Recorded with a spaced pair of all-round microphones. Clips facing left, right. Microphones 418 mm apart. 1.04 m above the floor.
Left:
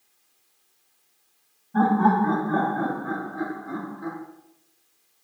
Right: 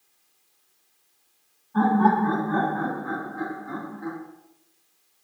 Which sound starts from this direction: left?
Laughter, at 1.7 s.